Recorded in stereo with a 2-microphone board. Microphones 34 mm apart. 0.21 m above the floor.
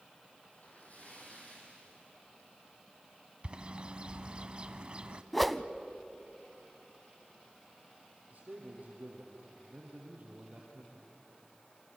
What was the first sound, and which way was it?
A splash, 50° left (ahead or behind).